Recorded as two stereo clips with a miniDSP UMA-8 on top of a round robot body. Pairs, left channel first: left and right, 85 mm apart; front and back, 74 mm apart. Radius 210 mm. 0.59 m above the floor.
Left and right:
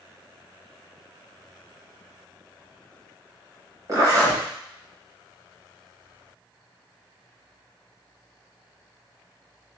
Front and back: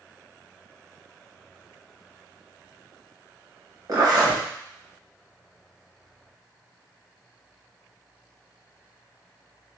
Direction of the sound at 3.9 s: 145° right.